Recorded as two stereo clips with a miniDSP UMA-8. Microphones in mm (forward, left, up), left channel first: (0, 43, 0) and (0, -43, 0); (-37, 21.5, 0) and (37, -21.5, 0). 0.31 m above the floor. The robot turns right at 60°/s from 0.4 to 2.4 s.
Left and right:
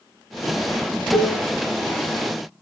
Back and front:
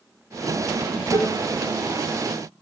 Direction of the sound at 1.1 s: Straight behind.